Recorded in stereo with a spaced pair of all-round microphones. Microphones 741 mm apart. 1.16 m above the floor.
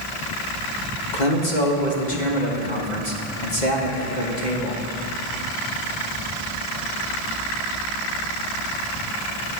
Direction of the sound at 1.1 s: 70° left (ahead or behind).